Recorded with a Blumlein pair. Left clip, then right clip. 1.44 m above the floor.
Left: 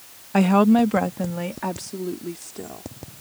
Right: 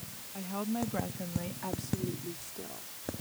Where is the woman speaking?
40° left; by 2.9 s 25° left.